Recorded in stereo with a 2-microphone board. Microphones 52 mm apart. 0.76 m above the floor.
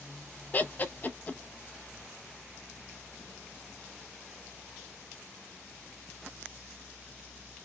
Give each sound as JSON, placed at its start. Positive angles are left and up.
{"t": 0.5, "sound": "laughter", "side_deg": 35, "distance_m": 0.6}